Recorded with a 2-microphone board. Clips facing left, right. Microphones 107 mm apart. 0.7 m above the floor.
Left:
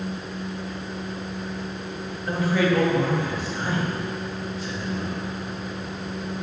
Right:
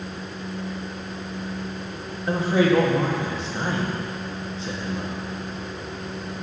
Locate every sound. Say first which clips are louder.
2.3 s a man speaking: right 3 dB; 25° right (ahead or behind), 0.9 m